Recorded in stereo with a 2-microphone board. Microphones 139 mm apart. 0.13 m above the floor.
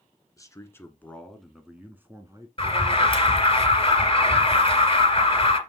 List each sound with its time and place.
0.4 s a man speaking: 25° left (ahead or behind), 1.4 m; by 2.5 s 25° right (ahead or behind), 1.2 m
2.6 s an alarm: 35° left (ahead or behind), 2 m